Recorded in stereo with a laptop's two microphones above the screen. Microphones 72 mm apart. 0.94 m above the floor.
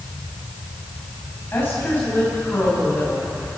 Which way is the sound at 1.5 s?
30° left (ahead or behind).